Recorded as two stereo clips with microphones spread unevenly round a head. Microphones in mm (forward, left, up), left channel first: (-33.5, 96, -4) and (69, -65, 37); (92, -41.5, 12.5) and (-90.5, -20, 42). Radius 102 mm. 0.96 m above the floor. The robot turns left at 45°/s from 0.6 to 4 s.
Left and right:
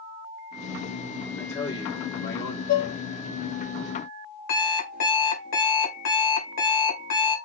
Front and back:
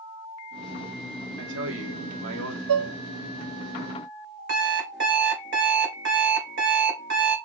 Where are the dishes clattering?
170° left, 0.7 m; by 3.0 s 160° left, 0.7 m.